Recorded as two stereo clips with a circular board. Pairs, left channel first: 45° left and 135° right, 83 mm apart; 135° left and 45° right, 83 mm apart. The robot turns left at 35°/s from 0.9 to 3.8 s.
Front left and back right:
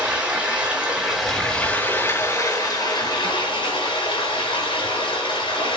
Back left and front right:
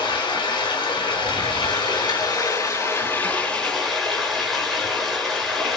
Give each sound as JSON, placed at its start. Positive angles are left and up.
{"t": 0.0, "sound": "running water", "azimuth_deg": 145, "distance_m": 5.0}